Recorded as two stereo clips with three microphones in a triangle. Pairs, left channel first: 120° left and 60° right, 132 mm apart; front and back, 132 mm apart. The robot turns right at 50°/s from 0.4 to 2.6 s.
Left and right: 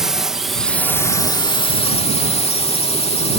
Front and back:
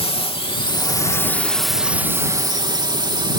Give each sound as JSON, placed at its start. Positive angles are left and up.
{"t": 0.0, "sound": "a drone", "azimuth_deg": 25}